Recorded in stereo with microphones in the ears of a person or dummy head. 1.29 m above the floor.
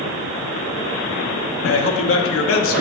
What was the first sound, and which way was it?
A man speaking, 65° left (ahead or behind).